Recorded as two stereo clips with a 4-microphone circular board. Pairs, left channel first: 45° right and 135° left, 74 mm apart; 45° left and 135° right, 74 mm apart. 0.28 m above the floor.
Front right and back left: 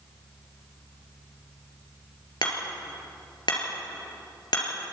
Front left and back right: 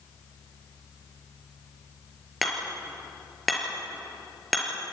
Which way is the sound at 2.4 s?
45° right.